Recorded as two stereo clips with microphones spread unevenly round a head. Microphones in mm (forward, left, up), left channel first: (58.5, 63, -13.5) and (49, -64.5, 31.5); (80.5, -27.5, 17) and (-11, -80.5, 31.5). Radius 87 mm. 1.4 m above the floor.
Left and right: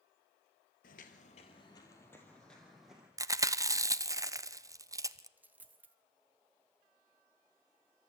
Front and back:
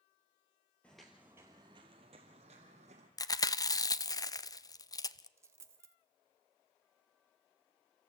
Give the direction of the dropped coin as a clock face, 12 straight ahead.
4 o'clock.